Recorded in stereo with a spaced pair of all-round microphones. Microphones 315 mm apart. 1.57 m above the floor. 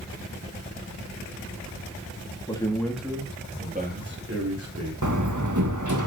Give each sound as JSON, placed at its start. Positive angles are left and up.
{"t": 2.5, "sound": "a man speaking", "side_deg": 15, "distance_m": 2.5}
{"t": 5.0, "sound": "a door slam", "side_deg": -65, "distance_m": 1.6}